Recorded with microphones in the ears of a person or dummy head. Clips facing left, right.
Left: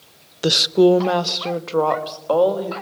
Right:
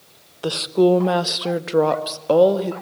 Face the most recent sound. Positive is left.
turn(degrees=-30)  # may be behind; listen again after turning